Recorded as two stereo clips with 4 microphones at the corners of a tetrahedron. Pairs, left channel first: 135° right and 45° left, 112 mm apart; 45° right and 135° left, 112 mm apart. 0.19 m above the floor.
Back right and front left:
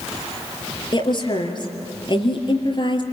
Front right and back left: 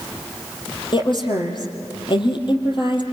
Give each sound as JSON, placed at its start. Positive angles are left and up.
{"t": 0.9, "sound": "a woman speaking", "azimuth_deg": -90, "distance_m": 4.0}